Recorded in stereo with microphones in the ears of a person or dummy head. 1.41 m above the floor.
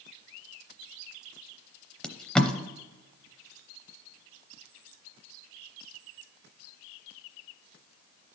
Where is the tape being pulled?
Centre (ahead or behind), 0.7 m.